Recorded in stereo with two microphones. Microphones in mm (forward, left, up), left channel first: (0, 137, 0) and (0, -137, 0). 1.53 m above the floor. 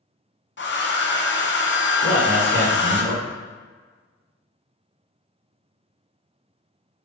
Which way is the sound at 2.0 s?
10° right (ahead or behind).